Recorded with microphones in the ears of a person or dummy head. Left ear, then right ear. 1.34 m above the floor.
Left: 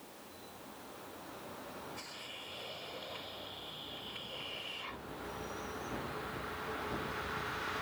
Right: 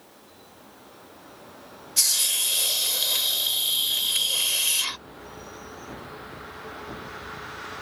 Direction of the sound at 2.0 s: 75° right (ahead or behind).